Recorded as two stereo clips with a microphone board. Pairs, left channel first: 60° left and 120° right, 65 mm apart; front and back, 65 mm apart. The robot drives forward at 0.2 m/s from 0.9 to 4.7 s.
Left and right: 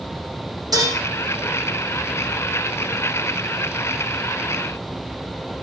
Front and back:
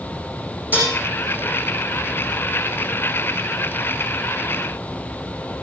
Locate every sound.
0.7 s dishes clattering: 120° right, 6.5 m